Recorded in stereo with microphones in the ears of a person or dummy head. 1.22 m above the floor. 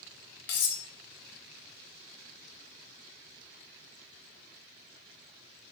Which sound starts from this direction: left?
Cutlery clinking, at 0.5 s.